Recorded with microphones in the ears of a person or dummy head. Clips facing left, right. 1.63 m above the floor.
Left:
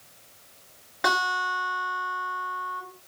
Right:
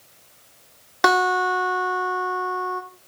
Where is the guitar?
60° right (ahead or behind), 2 m.